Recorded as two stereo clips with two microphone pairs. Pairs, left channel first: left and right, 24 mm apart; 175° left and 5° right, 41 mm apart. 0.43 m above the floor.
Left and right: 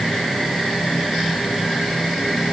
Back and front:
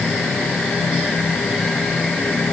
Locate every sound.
Only background noise.